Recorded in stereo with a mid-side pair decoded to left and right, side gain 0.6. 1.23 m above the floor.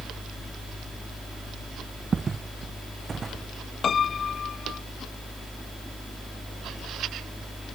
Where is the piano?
35° left.